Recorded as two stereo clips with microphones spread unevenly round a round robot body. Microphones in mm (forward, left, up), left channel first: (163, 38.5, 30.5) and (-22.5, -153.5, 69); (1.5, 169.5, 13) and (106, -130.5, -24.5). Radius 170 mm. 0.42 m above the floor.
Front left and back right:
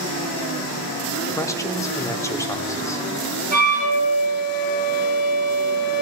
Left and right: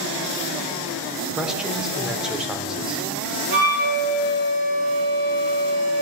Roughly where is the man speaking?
Ahead.